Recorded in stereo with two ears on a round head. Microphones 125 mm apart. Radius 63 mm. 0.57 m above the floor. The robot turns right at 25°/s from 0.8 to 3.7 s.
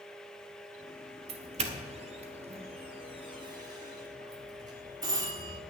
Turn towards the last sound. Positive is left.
turn(degrees=-30)  # may be behind; listen again after turning